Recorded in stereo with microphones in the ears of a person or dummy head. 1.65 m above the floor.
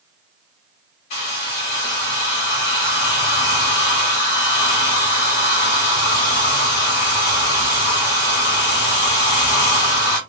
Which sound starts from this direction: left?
A hair dryer, at 1.1 s.